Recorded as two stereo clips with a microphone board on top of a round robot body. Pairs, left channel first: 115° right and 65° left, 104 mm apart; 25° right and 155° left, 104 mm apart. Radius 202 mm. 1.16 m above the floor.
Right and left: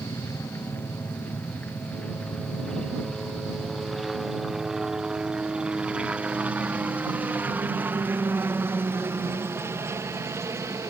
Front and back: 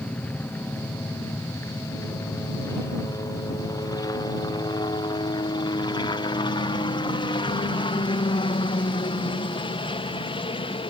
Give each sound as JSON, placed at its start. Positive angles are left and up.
{"t": 0.0, "sound": "a helicopter", "azimuth_deg": -80}